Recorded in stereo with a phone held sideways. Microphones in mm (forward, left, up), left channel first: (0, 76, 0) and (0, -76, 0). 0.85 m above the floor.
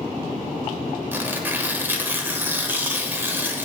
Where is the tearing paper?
15° right (ahead or behind), 1.1 m.